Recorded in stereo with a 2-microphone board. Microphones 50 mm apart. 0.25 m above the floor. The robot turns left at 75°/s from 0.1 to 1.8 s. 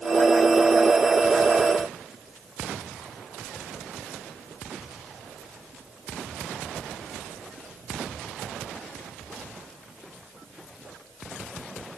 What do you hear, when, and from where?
Only background noise.